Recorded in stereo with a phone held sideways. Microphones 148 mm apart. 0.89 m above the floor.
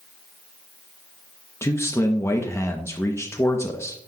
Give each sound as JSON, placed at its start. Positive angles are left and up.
{"t": 1.6, "sound": "a man speaking", "side_deg": 20, "distance_m": 0.8}